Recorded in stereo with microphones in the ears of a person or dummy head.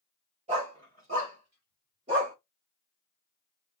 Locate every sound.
0.5 s a dog barking: 30° right (ahead or behind), 1.8 m; by 2.4 s 25° right (ahead or behind), 1.0 m